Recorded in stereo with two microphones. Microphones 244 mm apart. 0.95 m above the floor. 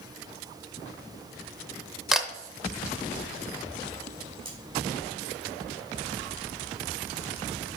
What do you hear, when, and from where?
2.1 s a camera shutter: centre (ahead or behind), 0.7 m
4.5 s cutlery clinking: 25° right (ahead or behind), 3.5 m